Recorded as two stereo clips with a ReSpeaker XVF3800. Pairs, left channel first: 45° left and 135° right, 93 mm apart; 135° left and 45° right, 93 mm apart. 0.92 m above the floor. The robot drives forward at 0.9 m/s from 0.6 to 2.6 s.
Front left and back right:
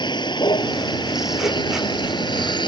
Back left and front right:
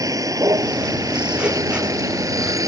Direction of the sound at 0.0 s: 10° left.